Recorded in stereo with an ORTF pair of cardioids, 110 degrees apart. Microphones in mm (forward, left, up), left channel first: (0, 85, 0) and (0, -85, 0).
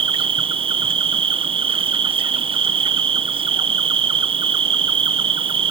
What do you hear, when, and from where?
0.0 s an insect: 30° right